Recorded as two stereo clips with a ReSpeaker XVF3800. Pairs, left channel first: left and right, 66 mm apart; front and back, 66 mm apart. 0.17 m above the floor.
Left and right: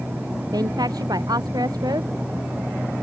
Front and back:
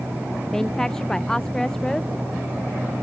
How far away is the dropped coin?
No dropped coin in this recording.